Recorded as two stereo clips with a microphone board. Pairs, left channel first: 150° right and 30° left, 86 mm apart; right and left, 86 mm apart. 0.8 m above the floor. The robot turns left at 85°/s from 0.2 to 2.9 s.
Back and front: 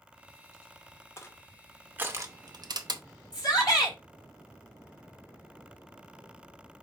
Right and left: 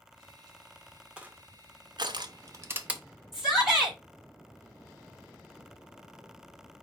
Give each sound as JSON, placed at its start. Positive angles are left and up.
{"t": 1.2, "sound": "crushing", "azimuth_deg": 165, "distance_m": 0.6}
{"t": 3.3, "sound": "a shout", "azimuth_deg": 170, "distance_m": 3.5}